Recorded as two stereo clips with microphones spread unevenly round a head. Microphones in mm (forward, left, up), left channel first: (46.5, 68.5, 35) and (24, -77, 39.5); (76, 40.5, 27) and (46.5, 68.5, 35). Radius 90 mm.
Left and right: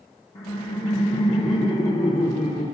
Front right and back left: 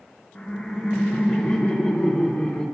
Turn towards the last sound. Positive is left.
turn(degrees=35)